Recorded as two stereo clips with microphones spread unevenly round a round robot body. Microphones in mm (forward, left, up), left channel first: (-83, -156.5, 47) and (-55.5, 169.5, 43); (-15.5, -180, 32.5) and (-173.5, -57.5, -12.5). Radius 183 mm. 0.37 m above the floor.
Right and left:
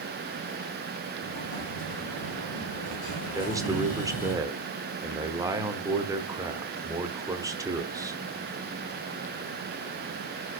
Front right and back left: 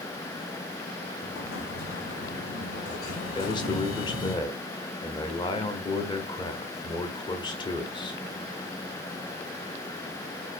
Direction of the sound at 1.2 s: 30° right.